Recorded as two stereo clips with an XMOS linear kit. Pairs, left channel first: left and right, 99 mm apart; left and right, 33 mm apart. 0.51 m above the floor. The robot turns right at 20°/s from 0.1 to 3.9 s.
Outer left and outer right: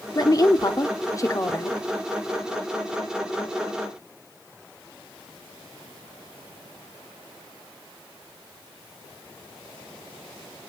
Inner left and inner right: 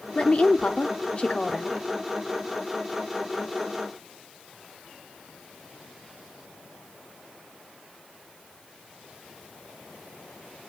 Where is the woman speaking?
100° left, 0.9 m; by 1.8 s 130° left, 0.9 m.